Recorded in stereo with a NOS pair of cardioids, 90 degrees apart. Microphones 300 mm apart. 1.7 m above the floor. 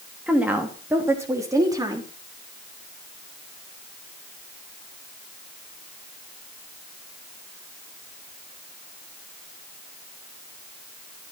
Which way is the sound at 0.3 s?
5° right.